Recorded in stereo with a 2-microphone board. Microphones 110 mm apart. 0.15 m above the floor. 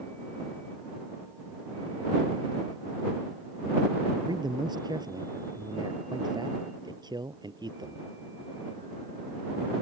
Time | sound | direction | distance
4.1 | a man speaking | 40° right (ahead or behind) | ?